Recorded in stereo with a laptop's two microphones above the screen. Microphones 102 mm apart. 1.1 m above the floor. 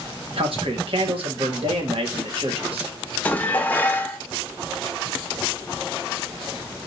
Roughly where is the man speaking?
Right.